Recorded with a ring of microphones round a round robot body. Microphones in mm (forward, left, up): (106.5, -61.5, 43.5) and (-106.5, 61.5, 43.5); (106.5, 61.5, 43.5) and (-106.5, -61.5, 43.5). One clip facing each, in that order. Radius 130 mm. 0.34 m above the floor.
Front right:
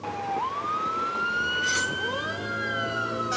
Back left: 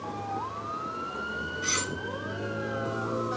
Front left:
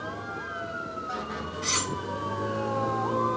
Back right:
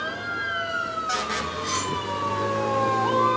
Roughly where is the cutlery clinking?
Ahead left.